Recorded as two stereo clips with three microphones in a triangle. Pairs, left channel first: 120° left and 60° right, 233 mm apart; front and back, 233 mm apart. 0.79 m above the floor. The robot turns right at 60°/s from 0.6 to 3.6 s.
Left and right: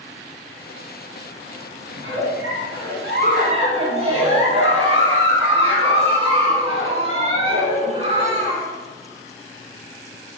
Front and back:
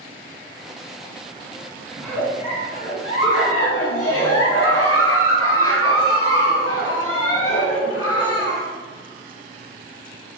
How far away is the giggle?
About 1.8 m.